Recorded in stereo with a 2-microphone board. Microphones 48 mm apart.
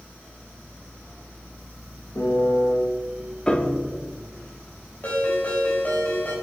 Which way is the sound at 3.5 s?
15° left (ahead or behind).